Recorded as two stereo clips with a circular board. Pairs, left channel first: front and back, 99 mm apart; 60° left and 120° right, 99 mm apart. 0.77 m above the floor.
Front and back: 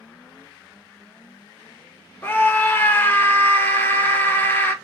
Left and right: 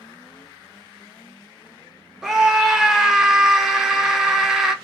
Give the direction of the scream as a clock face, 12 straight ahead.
1 o'clock.